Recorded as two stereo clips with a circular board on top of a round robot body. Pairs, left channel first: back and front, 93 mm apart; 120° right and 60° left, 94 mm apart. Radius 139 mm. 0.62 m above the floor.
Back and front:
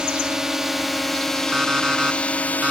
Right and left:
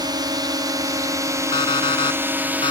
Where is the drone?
80° left; by 2.7 s 120° left.